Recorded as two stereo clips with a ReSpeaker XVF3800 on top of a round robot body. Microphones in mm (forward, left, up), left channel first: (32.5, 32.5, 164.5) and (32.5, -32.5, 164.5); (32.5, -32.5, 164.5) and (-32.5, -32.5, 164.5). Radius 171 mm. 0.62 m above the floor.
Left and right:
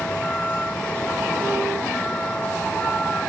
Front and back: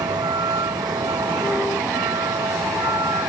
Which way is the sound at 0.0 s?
165° left.